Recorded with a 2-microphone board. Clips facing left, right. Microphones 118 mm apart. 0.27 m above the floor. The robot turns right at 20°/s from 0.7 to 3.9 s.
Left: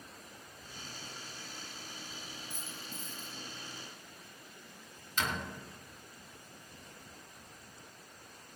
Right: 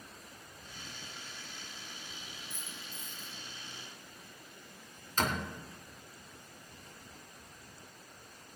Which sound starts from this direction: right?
A door slam, at 5.2 s.